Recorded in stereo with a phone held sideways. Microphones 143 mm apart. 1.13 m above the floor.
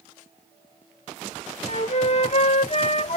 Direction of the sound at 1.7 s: 50° left (ahead or behind).